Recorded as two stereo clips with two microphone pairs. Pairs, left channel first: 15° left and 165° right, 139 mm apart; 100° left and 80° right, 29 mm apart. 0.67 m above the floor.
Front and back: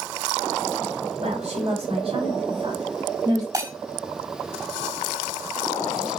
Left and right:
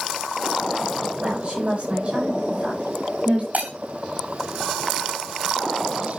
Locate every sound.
1.2 s a woman speaking: 125° right, 3.5 m; by 3.4 s 105° right, 3.5 m
3.5 s breaking glass: 100° right, 3 m